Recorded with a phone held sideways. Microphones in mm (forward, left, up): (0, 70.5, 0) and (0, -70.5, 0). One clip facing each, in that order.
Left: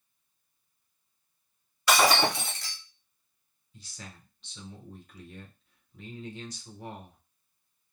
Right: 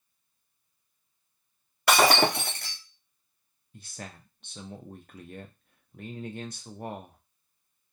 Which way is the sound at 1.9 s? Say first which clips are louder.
Right 2 dB; 55° right (ahead or behind).